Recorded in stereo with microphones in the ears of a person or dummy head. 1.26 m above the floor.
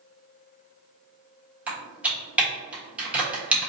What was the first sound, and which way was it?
Typing on a keyboard, 10° right (ahead or behind).